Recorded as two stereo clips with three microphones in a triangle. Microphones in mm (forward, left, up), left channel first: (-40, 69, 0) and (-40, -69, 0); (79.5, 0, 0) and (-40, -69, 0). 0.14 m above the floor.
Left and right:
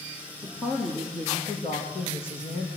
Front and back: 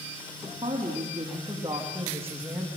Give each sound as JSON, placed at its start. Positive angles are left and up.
{"t": 0.4, "sound": "a woman speaking", "azimuth_deg": 160, "distance_m": 6.0}